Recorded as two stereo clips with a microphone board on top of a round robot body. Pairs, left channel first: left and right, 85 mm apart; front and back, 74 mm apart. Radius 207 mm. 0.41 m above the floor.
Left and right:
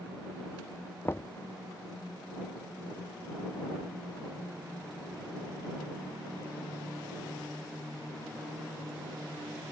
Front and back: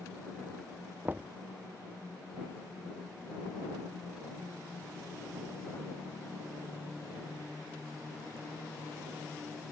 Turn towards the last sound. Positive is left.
turn(degrees=130)